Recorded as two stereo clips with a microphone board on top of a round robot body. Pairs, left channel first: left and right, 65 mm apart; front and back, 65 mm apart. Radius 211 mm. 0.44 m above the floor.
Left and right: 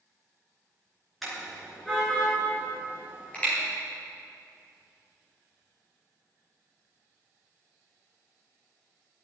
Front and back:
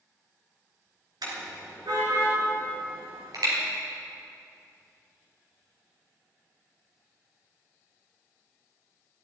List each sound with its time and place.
1.2 s a car horn: straight behind, 4.5 m; by 3.5 s 160° left, 6.5 m